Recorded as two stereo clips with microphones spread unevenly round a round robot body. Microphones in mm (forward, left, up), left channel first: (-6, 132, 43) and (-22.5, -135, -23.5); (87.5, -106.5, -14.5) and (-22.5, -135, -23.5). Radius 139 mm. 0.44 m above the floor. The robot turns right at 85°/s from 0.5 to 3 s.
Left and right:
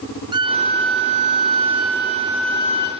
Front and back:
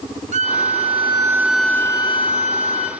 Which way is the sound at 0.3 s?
165° right.